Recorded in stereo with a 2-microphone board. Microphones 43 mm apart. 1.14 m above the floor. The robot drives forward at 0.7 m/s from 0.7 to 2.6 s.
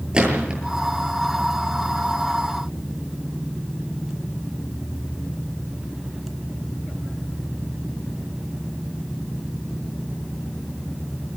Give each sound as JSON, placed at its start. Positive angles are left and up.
{"t": 0.1, "sound": "a gunshot", "side_deg": -20, "distance_m": 8.5}